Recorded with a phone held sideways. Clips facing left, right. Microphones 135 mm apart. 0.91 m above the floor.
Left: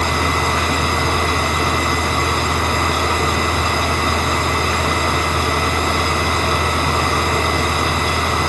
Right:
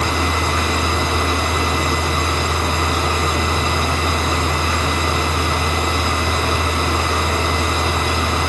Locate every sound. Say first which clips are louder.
0.0 s a machine running: left 1 dB; 55° left (ahead or behind), 6.5 m